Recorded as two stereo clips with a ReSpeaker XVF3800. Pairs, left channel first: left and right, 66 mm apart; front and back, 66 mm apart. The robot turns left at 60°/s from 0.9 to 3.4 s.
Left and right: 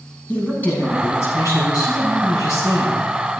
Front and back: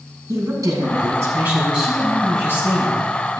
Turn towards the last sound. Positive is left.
turn(degrees=0)